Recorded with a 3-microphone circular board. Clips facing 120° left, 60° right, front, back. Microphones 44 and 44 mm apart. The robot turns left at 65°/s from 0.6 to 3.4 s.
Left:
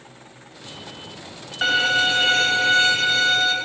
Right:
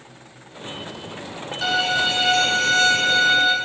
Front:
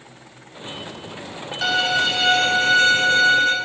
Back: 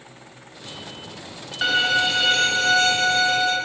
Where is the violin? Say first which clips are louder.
Left 2 dB, even; 125° left, 1.2 m; by 3.5 s 5° left, 1.2 m.